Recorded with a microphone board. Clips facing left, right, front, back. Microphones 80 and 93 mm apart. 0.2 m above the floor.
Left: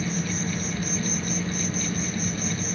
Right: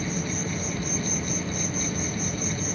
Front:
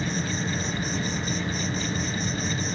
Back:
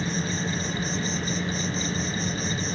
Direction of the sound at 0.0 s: 85° left.